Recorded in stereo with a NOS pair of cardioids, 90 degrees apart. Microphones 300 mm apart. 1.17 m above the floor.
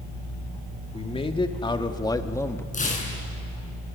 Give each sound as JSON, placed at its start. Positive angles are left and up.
{"t": 0.9, "sound": "a man speaking", "azimuth_deg": 20, "distance_m": 2.5}
{"t": 2.7, "sound": "tearing paper", "azimuth_deg": 25, "distance_m": 7.0}